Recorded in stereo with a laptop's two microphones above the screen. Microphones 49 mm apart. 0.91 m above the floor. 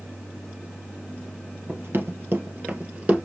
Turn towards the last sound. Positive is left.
turn(degrees=-25)  # may be behind; listen again after turning